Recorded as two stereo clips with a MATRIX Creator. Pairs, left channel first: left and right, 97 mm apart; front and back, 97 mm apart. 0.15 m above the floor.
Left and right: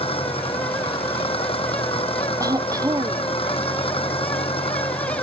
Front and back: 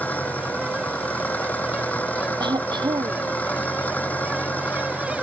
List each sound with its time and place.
0.0 s an engine running: 75° left
2.4 s throat clearing: 140° right